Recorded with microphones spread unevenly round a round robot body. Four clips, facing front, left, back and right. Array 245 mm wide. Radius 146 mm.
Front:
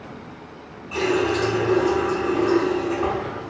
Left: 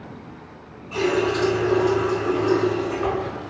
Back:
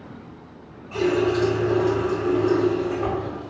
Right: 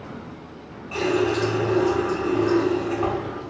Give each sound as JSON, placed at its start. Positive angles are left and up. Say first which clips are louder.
{"t": 0.9, "sound": "a running tap", "louder": "left 1 dB, back 1 dB", "azimuth_deg": -80, "distance_m": 1.5}